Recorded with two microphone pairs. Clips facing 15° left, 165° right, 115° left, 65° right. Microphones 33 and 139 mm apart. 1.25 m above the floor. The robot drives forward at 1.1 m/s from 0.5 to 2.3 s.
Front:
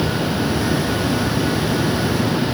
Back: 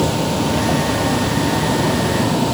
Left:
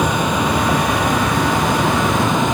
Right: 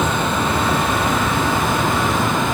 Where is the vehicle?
165° right; by 2.5 s 170° right.